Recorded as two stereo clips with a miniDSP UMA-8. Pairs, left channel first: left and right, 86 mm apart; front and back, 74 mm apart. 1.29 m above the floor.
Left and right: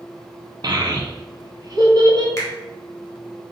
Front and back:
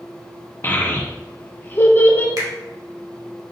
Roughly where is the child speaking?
Ahead right.